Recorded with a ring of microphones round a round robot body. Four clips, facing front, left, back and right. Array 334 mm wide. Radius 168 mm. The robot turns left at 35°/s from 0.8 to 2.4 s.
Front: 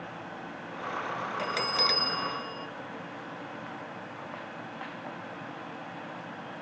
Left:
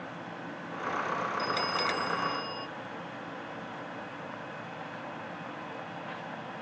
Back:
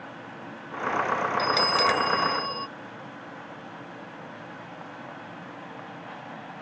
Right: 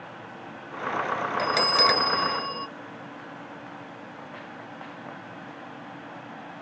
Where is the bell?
100° right; by 2.7 s 135° right.